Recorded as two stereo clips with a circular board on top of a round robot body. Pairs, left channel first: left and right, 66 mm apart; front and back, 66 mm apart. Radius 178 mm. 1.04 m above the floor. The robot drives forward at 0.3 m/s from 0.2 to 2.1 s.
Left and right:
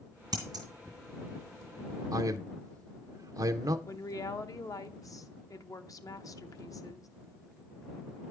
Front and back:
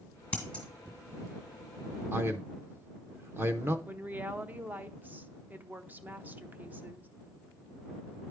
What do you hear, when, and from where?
0.3 s scissors: 75° right, 1.6 m
2.1 s a man speaking: 125° right, 0.5 m
3.9 s a woman speaking: 120° left, 0.9 m